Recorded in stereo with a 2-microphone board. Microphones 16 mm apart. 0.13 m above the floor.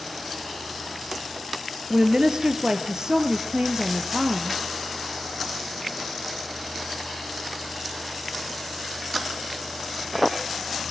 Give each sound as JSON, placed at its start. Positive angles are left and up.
{"t": 1.9, "sound": "a woman speaking", "side_deg": -55, "distance_m": 2.5}